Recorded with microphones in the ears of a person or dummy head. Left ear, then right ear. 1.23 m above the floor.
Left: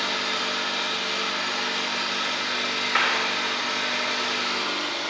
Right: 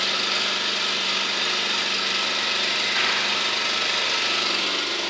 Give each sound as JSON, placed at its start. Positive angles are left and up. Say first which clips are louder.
{"t": 0.0, "sound": "an engine running", "louder": "right 3 dB", "side_deg": -65, "distance_m": 1.7}
{"t": 3.0, "sound": "a clap", "louder": "left 3 dB", "side_deg": 70, "distance_m": 3.0}